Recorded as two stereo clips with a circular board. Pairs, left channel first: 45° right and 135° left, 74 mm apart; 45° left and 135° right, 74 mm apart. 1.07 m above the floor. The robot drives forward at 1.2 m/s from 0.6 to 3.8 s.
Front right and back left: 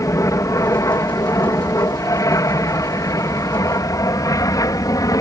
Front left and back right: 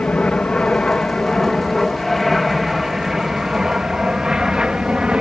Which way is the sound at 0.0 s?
20° right.